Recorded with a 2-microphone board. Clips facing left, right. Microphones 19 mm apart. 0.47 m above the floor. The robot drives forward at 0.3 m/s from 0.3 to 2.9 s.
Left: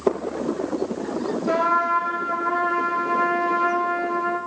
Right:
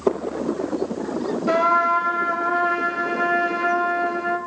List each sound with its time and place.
1.5 s a trumpet: 20° right (ahead or behind), 0.9 m